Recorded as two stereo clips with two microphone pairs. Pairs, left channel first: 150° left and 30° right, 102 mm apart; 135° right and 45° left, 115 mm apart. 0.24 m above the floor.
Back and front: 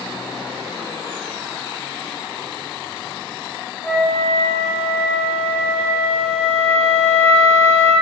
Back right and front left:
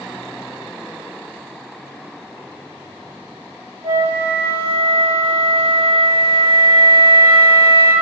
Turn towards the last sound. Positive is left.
turn(degrees=75)